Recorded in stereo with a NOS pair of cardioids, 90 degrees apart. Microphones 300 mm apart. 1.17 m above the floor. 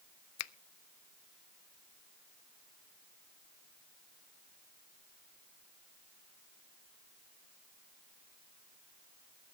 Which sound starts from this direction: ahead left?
A finger snap, at 0.4 s.